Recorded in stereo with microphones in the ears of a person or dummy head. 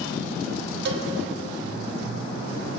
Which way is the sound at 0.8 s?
65° right (ahead or behind).